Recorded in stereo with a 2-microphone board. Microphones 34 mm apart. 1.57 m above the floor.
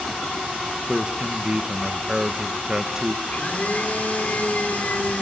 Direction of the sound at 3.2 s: 50° left (ahead or behind).